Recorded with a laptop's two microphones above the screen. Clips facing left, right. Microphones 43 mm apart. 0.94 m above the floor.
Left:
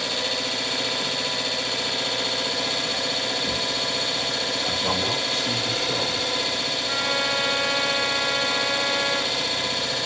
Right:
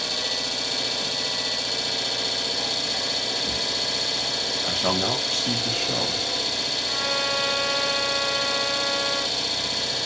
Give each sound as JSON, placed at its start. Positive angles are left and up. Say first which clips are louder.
{"t": 0.0, "sound": "an engine running", "louder": "left 2 dB", "side_deg": 30, "distance_m": 0.9}
{"t": 4.6, "sound": "a man speaking", "louder": "right 2 dB", "side_deg": -55, "distance_m": 1.1}
{"t": 6.9, "sound": "a trumpet", "louder": "left 2 dB", "side_deg": 30, "distance_m": 0.5}